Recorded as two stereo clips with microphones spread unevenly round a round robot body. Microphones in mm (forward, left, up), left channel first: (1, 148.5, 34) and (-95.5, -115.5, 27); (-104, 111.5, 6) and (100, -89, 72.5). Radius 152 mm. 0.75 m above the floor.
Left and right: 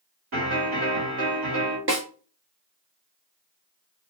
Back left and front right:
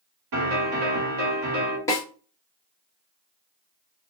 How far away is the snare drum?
About 1.2 m.